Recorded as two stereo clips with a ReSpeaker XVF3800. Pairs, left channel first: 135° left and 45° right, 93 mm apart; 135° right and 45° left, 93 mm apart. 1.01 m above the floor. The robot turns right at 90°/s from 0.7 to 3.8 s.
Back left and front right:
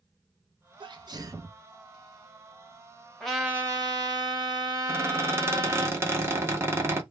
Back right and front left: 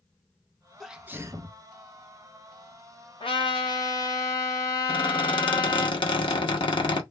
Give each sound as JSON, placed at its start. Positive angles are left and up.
{"t": 0.8, "sound": "a sneeze", "azimuth_deg": -45, "distance_m": 0.6}
{"t": 3.2, "sound": "a trumpet", "azimuth_deg": -140, "distance_m": 1.0}
{"t": 4.9, "sound": "a squeak", "azimuth_deg": -105, "distance_m": 0.8}